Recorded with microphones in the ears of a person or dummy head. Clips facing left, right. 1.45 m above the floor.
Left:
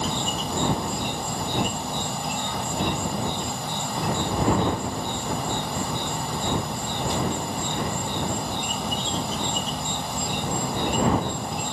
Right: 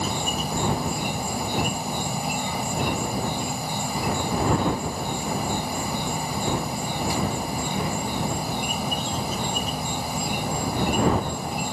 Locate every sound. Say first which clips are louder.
0.0 s an insect: even; 5° right (ahead or behind)